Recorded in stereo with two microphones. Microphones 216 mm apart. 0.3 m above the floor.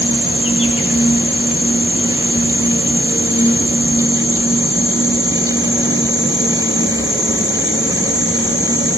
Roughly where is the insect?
Left.